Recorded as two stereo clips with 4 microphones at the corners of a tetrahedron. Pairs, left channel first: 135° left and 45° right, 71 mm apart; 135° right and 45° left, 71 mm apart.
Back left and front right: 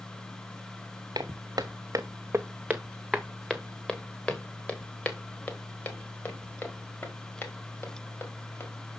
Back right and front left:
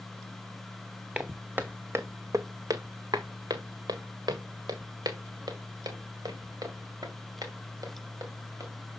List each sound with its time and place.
1.1 s footsteps: 30° right, 0.9 m; by 8.7 s 80° left, 3.5 m